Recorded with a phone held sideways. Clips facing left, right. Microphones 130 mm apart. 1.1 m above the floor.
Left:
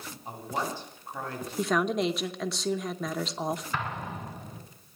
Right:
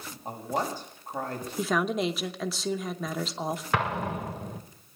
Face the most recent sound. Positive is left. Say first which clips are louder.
# right 6 dB
turn(degrees=-75)  # may be behind; listen again after turning